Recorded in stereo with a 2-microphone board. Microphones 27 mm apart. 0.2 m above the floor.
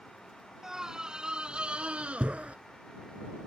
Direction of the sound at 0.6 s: 20° right (ahead or behind).